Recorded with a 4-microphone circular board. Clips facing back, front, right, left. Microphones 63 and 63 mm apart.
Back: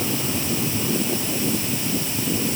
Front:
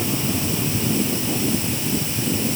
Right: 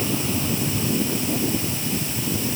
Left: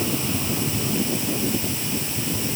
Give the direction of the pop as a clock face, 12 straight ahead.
No pop in this recording.